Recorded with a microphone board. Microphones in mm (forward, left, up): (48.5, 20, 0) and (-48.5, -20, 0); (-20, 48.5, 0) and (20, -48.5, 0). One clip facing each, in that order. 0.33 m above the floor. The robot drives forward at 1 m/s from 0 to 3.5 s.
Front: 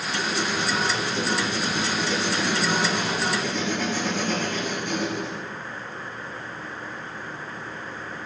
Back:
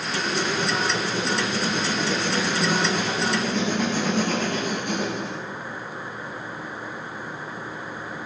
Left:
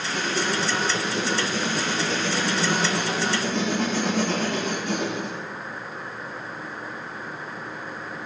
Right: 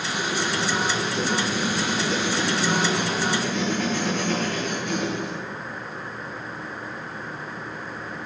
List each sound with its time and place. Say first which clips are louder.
0.1 s writing: back 1 dB, left 1 dB; 160° left, 4.5 m; by 5.4 s 170° left, 7.5 m